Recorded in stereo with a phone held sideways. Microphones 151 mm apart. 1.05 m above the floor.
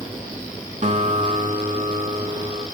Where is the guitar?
55° right (ahead or behind), 5 m.